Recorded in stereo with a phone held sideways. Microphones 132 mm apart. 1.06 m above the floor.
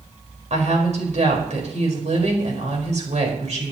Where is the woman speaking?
60° right (ahead or behind), 4.5 m.